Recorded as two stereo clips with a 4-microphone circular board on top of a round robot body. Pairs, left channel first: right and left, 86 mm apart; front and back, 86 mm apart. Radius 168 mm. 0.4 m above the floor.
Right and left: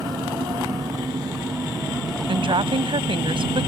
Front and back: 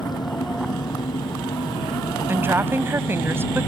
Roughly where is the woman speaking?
Behind left.